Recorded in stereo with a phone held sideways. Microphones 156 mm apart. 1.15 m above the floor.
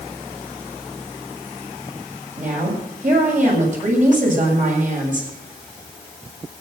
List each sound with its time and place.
2.4 s a woman speaking: 55° right (ahead or behind), 7 m